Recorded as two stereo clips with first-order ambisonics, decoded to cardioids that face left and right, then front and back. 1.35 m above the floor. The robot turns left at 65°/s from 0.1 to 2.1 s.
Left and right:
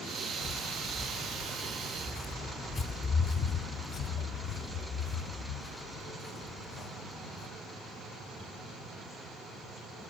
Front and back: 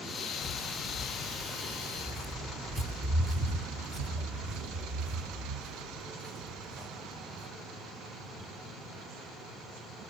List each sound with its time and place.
0.4 s footsteps: 30° left, 1.7 m; by 7.5 s 110° left, 3.5 m